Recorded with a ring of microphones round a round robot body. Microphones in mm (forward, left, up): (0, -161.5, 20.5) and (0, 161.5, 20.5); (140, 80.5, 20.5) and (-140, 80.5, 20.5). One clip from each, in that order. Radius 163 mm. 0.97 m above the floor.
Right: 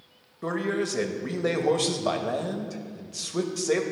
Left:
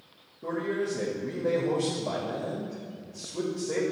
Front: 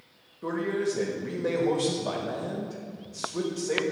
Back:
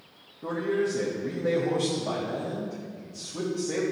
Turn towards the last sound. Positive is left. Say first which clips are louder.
# right 2 dB, back 1 dB
turn(degrees=-70)